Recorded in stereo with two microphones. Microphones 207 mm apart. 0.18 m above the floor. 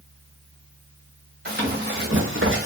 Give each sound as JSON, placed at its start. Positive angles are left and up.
{"t": 1.4, "sound": "running footsteps", "side_deg": -50, "distance_m": 1.2}